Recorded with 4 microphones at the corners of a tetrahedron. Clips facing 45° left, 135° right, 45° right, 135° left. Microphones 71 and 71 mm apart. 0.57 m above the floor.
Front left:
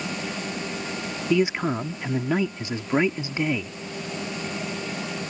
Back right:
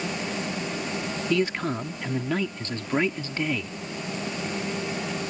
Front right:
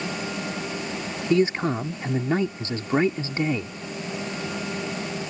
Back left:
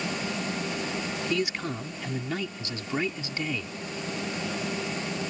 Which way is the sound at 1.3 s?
25° right.